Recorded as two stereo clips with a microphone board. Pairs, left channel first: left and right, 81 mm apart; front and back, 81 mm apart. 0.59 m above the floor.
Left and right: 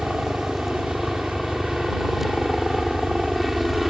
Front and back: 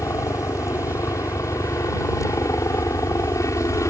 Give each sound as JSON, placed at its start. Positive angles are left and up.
{"t": 0.0, "sound": "a helicopter", "azimuth_deg": 0}